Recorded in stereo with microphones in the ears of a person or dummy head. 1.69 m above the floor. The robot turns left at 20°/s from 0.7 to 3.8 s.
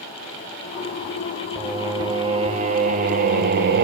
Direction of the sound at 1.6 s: 10° right.